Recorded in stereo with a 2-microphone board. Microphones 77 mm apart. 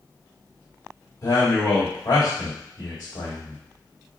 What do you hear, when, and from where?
1.2 s a man speaking: 50° left (ahead or behind), 2.5 m